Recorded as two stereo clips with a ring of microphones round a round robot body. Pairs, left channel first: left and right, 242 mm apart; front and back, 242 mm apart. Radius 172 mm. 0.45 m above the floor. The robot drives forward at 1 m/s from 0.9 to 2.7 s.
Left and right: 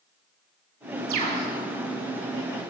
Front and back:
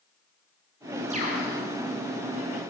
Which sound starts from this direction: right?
A bird, at 1.1 s.